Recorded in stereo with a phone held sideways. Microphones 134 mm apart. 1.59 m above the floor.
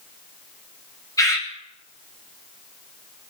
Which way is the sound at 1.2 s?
25° left (ahead or behind).